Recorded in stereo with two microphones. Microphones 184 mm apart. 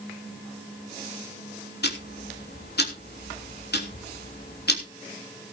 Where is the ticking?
65° left (ahead or behind), 3 m.